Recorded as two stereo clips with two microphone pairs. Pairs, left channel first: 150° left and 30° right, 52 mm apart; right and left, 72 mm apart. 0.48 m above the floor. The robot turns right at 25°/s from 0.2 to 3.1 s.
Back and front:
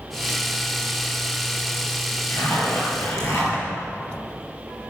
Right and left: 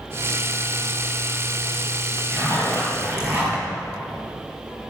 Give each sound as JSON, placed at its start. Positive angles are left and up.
{"t": 2.3, "sound": "a zipper", "azimuth_deg": 135, "distance_m": 4.5}